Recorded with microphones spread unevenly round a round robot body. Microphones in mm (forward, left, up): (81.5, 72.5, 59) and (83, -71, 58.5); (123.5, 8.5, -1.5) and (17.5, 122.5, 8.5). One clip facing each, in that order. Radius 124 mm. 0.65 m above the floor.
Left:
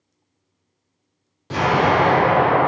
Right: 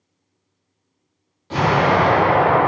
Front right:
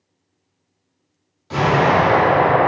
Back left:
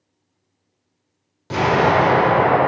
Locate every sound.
1.5 s an explosion: 145° left, 1.7 m